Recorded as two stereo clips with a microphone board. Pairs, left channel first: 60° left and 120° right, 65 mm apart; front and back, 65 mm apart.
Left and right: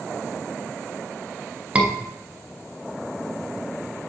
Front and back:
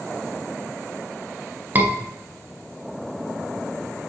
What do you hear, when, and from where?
1.8 s a scream: 170° right, 1.2 m